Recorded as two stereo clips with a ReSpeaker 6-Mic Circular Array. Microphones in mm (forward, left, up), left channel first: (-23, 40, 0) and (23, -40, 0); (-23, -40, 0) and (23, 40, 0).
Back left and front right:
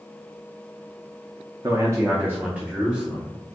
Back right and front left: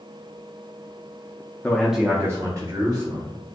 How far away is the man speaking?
About 0.5 m.